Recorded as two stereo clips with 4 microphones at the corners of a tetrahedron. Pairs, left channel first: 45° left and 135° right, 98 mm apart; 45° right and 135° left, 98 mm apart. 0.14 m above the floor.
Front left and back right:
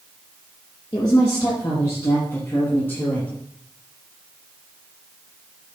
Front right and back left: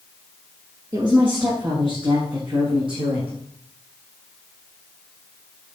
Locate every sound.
0.9 s a woman speaking: 95° left, 5.5 m; by 3.3 s 120° left, 4.5 m